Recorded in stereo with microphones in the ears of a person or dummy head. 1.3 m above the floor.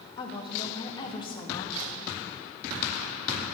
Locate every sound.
0.2 s a woman speaking: 20° left (ahead or behind), 2.5 m